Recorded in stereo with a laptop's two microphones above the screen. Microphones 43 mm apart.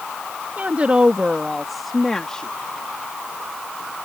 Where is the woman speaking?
40° right (ahead or behind); by 2.5 s 20° left (ahead or behind).